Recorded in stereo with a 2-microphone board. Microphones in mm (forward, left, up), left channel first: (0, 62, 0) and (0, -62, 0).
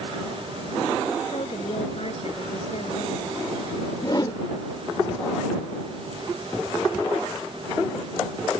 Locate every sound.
1.3 s a woman speaking: 55° left (ahead or behind)
4.0 s a whoosh: 35° left (ahead or behind)